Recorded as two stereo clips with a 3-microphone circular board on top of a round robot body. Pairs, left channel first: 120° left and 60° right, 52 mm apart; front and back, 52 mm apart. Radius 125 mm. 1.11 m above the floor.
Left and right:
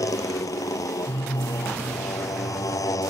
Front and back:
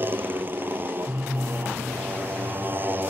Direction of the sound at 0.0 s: 125° left.